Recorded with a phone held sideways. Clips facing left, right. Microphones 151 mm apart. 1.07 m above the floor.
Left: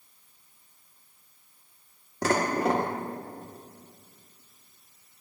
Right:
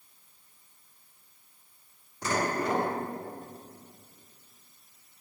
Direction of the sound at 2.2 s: 80° left.